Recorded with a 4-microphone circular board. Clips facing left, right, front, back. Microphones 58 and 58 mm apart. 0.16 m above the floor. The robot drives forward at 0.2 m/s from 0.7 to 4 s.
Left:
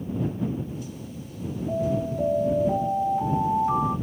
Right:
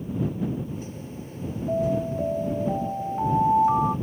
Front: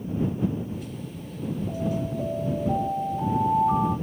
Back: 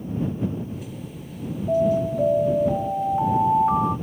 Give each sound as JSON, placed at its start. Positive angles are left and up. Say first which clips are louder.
{"t": 1.7, "sound": "an alarm", "louder": "right 2 dB, back 12 dB", "azimuth_deg": -160, "distance_m": 3.0}